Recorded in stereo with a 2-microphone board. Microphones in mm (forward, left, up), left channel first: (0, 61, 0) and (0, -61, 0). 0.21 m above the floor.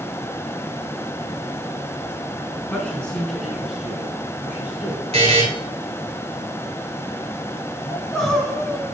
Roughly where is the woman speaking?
Centre.